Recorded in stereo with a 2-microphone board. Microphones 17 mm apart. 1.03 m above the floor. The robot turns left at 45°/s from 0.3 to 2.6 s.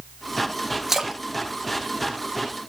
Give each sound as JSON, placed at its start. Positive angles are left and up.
{"t": 0.9, "sound": "a splash", "side_deg": -25, "distance_m": 0.8}